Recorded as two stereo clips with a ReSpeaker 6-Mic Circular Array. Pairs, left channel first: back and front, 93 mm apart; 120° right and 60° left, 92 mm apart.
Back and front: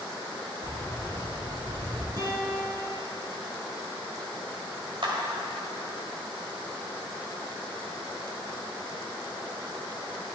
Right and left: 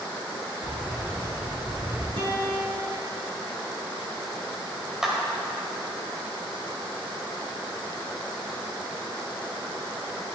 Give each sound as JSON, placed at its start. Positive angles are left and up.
{"t": 0.6, "sound": "keys jangling", "azimuth_deg": -5, "distance_m": 2.5}
{"t": 2.2, "sound": "a guitar", "azimuth_deg": 45, "distance_m": 2.5}
{"t": 5.0, "sound": "a clap", "azimuth_deg": -25, "distance_m": 1.8}